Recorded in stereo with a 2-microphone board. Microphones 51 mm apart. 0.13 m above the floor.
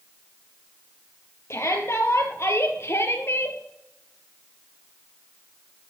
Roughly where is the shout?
Left.